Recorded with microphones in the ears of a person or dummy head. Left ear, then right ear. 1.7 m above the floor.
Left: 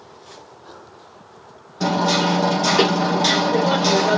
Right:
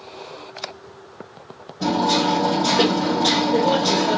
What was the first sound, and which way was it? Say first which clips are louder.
Hammering: even; 55° left (ahead or behind).